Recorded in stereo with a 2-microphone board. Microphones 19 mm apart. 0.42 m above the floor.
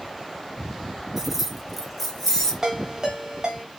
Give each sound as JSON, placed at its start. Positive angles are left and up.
{"t": 1.2, "sound": "keys jangling", "side_deg": -20, "distance_m": 0.5}
{"t": 2.6, "sound": "a ringtone", "side_deg": -30, "distance_m": 1.1}